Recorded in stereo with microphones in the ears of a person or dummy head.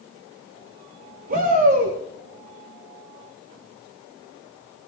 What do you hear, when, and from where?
1.3 s a shout: 50° right (ahead or behind), 4.5 m